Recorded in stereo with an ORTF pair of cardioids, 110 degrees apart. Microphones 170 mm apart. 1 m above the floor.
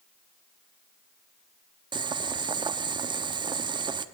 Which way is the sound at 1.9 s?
30° right.